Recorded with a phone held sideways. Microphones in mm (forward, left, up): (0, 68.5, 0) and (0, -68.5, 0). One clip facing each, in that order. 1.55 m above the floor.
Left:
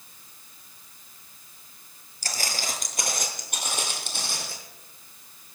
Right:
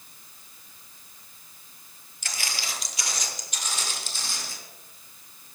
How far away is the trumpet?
I don't hear a trumpet.